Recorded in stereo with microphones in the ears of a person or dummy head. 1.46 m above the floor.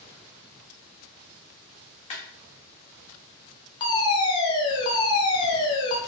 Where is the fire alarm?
25° left (ahead or behind), 0.7 m.